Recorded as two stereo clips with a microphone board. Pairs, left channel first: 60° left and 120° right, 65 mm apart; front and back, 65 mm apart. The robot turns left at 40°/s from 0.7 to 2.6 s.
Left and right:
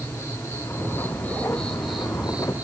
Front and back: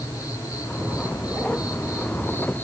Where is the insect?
20° left, 4.5 m; by 2.6 s 60° right, 4.5 m.